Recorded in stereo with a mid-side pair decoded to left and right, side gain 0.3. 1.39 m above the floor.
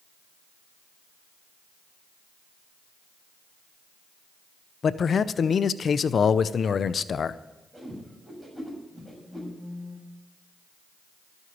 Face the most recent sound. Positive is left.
turn(degrees=15)